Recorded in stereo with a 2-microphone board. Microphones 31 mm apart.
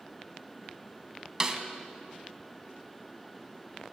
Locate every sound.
1.4 s a snare drum: 20° right (ahead or behind), 0.6 m